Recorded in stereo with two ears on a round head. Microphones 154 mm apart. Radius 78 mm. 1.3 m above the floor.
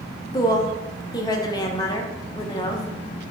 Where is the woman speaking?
25° left (ahead or behind), 0.6 m.